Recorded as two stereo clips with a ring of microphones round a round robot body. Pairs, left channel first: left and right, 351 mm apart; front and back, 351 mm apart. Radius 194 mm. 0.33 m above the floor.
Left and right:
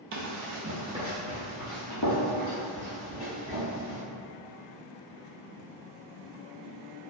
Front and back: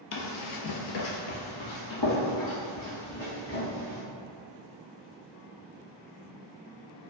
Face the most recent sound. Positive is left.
turn(degrees=60)